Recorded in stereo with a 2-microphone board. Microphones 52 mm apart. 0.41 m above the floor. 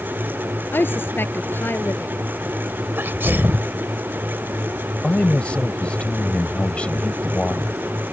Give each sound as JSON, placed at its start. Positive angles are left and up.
{"t": 0.7, "sound": "a woman speaking", "side_deg": 45}
{"t": 3.0, "sound": "a sneeze", "side_deg": -45}
{"t": 5.0, "sound": "a man speaking", "side_deg": 25}